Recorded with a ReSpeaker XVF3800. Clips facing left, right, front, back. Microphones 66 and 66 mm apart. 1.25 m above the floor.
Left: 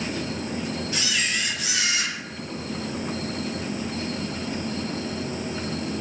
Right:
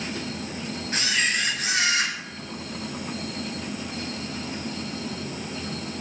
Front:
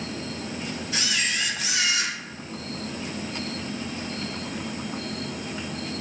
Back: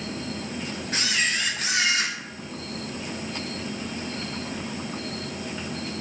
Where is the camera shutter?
140° right, 2 m.